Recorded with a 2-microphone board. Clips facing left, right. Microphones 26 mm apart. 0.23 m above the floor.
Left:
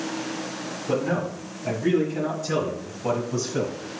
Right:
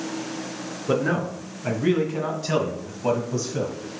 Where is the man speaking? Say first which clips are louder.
Right 2 dB; 65° right (ahead or behind), 3.5 m; by 3.8 s 5° left (ahead or behind), 1.6 m.